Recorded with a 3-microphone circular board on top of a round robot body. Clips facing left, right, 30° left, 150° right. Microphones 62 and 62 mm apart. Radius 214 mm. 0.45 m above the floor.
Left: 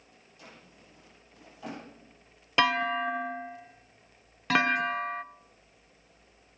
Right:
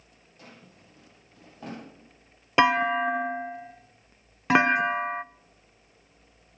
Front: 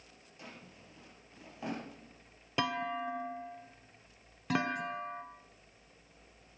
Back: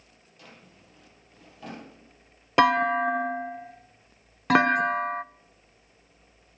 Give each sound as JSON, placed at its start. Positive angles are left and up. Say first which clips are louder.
{"t": 0.4, "sound": "a drawer", "louder": "right 2 dB, even", "azimuth_deg": -40, "distance_m": 5.0}
{"t": 2.6, "sound": "a clunk", "louder": "right 5 dB, back 14 dB", "azimuth_deg": -155, "distance_m": 0.6}